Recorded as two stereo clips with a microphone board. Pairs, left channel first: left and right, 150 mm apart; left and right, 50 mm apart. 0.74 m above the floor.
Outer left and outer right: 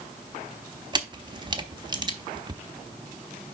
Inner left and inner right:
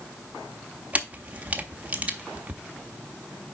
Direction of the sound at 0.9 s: 30° right (ahead or behind).